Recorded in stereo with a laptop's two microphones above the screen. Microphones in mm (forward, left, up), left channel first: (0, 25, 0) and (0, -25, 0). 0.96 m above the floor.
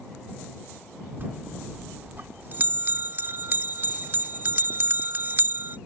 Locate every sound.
1.2 s a bell: 40° right (ahead or behind)